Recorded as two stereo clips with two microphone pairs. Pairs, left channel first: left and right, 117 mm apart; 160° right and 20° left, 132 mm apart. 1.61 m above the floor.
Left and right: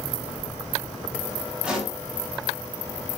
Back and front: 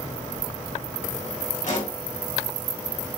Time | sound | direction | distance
1.6 | a pop | 175° right | 2.5 m